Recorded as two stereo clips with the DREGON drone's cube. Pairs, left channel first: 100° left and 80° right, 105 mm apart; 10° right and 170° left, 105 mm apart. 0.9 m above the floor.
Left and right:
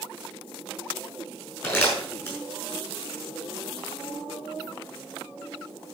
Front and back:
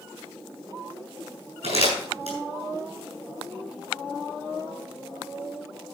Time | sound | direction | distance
1.6 | crumpling | 175° left | 6 m